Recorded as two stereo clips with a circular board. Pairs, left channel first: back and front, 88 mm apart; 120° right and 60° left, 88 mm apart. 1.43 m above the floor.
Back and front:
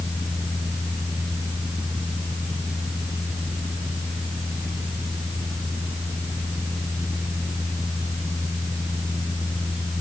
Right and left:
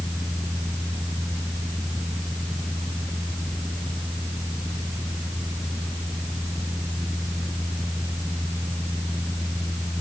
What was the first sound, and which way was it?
Only background noise.